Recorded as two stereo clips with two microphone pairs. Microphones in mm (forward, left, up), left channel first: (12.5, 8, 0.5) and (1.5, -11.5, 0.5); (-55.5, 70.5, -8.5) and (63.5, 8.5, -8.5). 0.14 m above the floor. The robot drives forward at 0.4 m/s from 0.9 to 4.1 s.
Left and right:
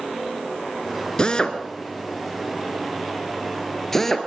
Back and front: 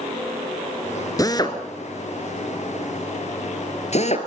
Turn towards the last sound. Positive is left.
turn(degrees=135)